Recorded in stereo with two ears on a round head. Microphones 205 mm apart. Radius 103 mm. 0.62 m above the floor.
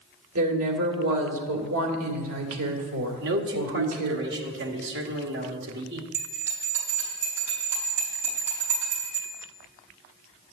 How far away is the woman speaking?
About 2 m.